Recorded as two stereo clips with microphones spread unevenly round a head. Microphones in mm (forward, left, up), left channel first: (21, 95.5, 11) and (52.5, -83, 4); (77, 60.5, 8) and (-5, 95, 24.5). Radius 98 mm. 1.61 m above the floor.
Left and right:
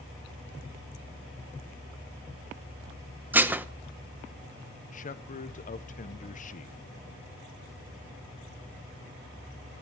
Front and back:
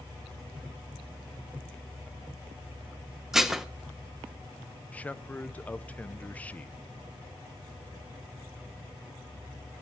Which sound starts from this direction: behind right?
Dishes clattering, at 3.3 s.